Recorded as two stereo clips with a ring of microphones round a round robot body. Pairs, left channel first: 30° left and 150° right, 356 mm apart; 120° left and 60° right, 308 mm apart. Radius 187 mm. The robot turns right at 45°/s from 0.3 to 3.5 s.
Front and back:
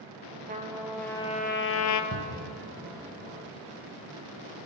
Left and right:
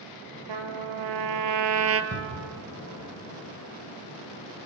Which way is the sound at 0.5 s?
80° right.